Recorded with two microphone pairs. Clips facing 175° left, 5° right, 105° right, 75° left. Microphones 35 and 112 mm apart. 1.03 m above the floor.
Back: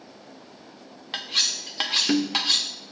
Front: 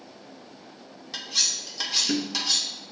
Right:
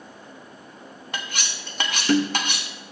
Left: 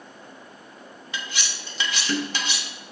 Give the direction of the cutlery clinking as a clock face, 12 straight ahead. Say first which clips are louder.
Back 3 dB, right 1 dB; 5 o'clock.